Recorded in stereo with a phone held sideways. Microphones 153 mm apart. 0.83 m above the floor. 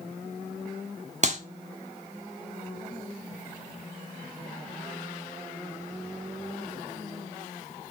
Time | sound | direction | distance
1.2 | a clap | 50° right (ahead or behind) | 1.3 m